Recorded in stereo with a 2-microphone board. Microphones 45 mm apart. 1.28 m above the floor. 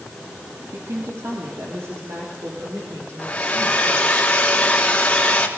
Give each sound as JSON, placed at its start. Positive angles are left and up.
{"t": 0.7, "sound": "a woman speaking", "side_deg": -75, "distance_m": 3.5}
{"t": 3.2, "sound": "a hair dryer", "side_deg": 25, "distance_m": 3.5}